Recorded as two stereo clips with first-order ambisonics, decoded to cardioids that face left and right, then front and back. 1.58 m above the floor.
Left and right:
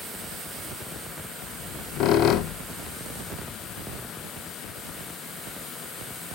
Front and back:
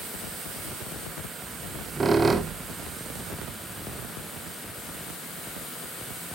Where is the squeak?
110° left, 0.7 m.